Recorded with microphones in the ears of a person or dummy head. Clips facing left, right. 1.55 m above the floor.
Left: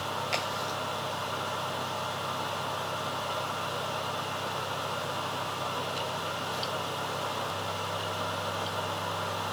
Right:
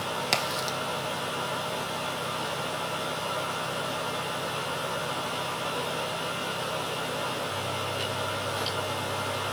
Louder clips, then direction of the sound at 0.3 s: Right 3 dB; 60° right (ahead or behind).